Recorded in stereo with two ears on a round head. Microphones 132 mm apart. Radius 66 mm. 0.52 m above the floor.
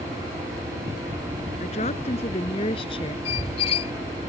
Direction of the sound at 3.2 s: 40° left (ahead or behind).